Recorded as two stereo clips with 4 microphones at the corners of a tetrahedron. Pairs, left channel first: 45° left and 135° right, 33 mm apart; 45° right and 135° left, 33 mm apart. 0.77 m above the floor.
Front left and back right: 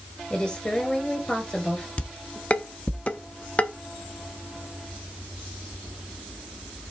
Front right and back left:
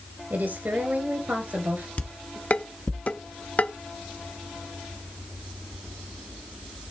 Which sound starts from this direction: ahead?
Dishes clattering, at 2.0 s.